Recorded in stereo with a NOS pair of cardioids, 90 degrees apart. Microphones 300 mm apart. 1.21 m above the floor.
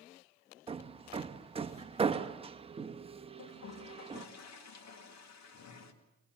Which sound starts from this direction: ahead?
Hammering, at 0.7 s.